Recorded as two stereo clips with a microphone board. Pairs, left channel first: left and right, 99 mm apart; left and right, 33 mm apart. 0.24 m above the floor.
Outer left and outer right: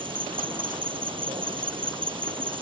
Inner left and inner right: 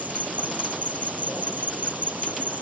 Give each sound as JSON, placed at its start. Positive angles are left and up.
{"t": 0.0, "sound": "an insect", "side_deg": -60}